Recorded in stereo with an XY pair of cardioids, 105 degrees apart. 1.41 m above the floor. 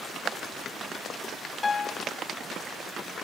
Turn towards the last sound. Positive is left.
turn(degrees=30)